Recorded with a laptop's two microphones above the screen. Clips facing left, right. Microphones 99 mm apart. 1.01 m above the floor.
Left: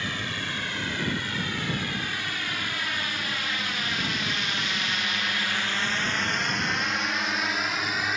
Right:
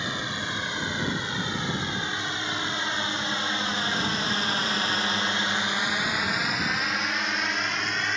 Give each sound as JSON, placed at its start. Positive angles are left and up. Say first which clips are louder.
{"t": 0.0, "sound": "a drone", "louder": "right 1 dB", "side_deg": -20}